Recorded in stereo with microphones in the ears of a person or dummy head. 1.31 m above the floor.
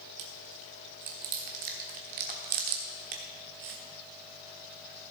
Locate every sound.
0.2 s chewing: 40° right (ahead or behind), 1.1 m